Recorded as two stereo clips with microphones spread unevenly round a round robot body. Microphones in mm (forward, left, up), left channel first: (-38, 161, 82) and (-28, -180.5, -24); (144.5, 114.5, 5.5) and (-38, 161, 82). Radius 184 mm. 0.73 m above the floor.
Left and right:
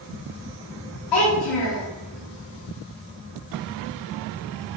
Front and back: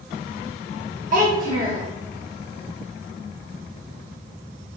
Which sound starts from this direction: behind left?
A child speaking, at 1.1 s.